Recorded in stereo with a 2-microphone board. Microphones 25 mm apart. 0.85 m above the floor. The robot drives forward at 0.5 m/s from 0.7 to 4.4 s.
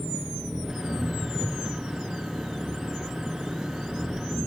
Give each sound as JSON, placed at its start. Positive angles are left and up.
{"t": 0.0, "sound": "an engine running", "side_deg": -20}